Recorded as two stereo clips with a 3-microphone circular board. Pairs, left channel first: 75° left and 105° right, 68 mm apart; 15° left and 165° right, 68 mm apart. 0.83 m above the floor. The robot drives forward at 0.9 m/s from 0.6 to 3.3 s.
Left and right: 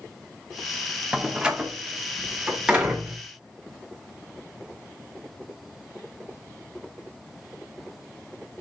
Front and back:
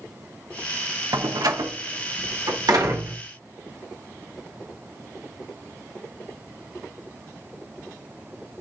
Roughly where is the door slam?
Behind.